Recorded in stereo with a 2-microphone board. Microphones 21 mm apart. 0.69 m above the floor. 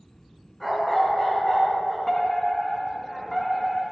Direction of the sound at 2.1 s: 10° left (ahead or behind).